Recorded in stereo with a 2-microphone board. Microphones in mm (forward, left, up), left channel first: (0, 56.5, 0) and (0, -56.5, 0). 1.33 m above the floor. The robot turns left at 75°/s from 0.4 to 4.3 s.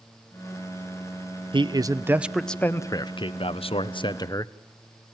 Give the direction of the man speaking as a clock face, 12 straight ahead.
4 o'clock.